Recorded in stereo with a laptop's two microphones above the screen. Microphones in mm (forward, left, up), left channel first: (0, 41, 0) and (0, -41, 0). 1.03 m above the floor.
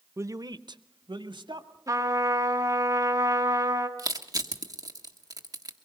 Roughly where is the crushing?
Right.